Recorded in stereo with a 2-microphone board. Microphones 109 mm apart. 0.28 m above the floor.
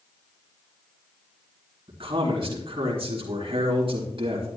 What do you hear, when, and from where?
1.9 s a man speaking: 55° right (ahead or behind), 3.5 m